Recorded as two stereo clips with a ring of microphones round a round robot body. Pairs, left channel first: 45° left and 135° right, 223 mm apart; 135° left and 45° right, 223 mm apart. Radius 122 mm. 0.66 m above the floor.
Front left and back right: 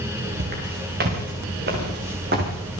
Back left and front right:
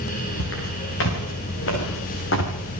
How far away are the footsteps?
About 8 m.